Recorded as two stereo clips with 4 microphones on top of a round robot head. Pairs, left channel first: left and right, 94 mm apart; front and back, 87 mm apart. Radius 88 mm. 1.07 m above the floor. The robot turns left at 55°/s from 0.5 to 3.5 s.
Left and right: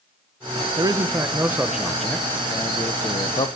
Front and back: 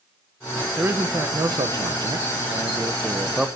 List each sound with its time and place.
0.8 s a man speaking: 115° right, 0.9 m; by 3.5 s 95° left, 0.9 m